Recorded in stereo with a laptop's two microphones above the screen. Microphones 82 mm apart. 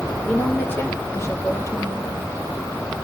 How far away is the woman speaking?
About 3.5 m.